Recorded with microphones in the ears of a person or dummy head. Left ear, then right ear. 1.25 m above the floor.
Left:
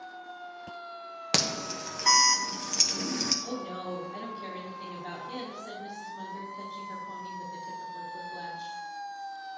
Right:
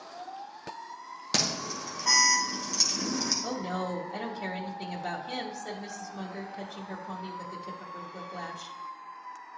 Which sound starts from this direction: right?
A woman speaking, at 3.4 s.